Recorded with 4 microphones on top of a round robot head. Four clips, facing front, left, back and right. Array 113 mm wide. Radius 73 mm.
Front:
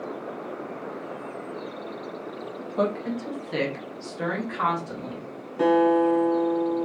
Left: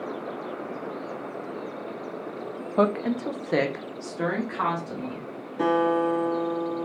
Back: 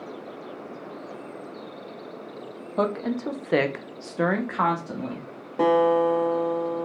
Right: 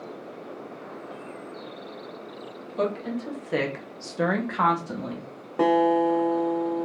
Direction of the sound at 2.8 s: 110° left.